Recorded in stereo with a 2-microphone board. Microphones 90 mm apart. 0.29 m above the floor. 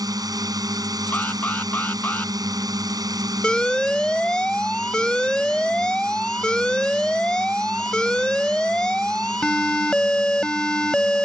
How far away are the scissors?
No scissors in this recording.